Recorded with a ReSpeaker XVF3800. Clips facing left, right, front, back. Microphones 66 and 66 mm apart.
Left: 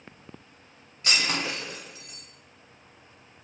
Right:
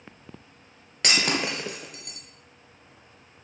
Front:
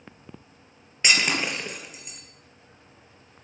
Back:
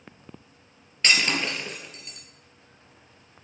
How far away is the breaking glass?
About 3.5 m.